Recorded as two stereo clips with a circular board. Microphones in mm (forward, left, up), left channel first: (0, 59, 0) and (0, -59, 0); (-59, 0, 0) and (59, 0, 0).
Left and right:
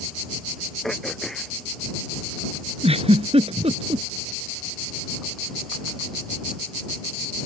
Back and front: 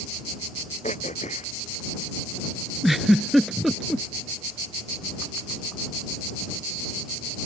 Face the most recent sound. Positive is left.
turn(degrees=-90)